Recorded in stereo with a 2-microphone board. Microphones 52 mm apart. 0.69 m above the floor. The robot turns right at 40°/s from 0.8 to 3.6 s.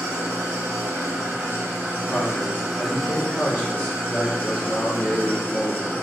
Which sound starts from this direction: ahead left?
A man speaking, at 2.1 s.